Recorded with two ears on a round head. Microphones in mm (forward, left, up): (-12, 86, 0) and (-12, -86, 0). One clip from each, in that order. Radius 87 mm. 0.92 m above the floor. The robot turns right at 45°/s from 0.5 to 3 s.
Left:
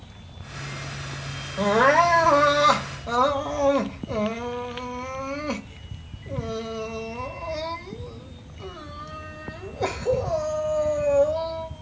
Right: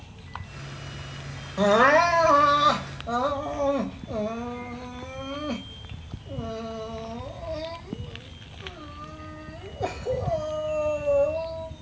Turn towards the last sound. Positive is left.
turn(degrees=35)